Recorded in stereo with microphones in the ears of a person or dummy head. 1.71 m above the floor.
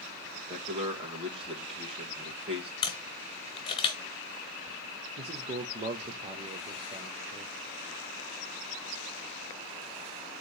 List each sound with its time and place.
0.5 s a man speaking: 25° right (ahead or behind), 1.8 m
2.8 s a camera shutter: 25° left (ahead or behind), 1.1 m
5.2 s a man speaking: 35° right (ahead or behind), 0.8 m